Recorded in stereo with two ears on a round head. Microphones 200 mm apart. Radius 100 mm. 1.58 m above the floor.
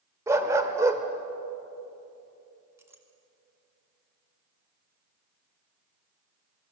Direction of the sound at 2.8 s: 10° right (ahead or behind).